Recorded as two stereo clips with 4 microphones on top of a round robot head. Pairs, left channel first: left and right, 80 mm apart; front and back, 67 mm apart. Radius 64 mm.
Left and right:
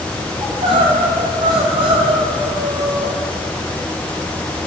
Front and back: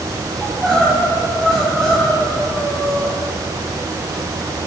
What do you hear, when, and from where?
0.4 s crying: 85° right, 1.9 m